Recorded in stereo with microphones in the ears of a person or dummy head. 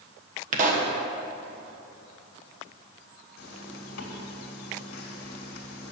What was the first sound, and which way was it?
A pop, 50° right (ahead or behind).